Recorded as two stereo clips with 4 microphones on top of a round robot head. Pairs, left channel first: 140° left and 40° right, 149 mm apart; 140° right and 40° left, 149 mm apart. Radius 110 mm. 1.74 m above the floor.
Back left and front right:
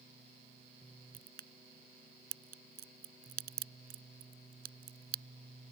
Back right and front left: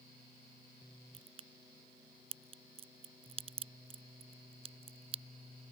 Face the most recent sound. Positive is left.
turn(degrees=-15)